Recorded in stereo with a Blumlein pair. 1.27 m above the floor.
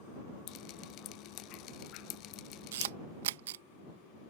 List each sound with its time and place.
0.5 s dripping: 40° left
2.7 s a camera shutter: 55° right